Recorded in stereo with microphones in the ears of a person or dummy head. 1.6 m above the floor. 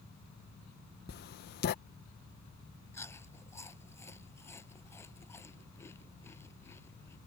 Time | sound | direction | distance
1.1 | writing | 55° left (ahead or behind) | ?
2.9 | chewing | 15° left (ahead or behind) | ?